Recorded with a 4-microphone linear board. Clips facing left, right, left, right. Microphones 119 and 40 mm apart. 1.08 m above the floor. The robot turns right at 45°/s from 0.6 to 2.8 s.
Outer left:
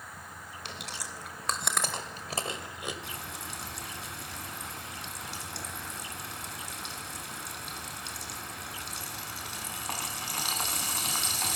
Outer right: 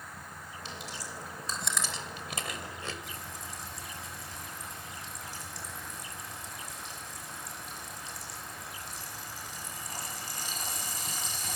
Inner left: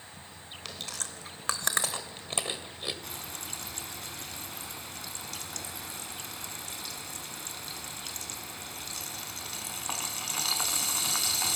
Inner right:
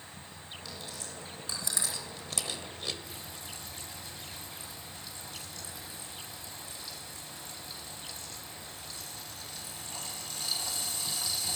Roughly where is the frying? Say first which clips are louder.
Outer left 2 dB, inner left 3 dB; left.